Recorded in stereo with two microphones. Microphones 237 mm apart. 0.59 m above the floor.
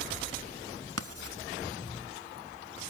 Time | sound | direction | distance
1.0 | writing | 75° right (ahead or behind) | 1.2 m